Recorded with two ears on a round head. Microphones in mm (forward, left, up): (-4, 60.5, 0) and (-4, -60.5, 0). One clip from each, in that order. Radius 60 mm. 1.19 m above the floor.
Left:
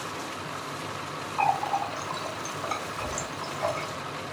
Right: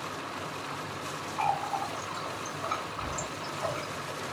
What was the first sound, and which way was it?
A running tap, 60° left (ahead or behind).